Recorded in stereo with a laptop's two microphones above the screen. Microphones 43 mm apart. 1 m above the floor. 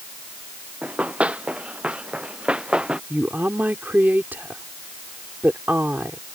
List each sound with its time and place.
0.8 s running footsteps: 35° right (ahead or behind); by 3.0 s 25° right (ahead or behind)
3.1 s a woman speaking: 50° right (ahead or behind)